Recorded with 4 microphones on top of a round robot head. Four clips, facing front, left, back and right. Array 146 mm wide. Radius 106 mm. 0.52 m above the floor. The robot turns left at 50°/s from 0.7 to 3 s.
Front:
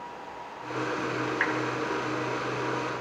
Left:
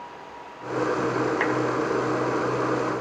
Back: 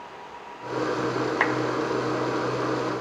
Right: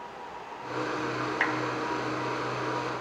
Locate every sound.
1.4 s a clap: 175° right, 4 m; by 1.6 s straight behind, 4 m